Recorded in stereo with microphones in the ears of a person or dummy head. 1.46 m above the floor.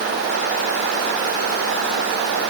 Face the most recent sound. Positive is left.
No sound to turn to.